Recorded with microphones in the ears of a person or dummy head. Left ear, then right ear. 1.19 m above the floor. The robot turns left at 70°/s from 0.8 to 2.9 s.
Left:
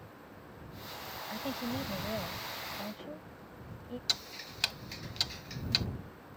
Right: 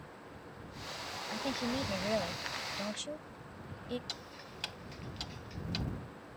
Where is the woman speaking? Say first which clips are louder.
Right 2 dB; centre (ahead or behind); by 4.0 s 65° right (ahead or behind).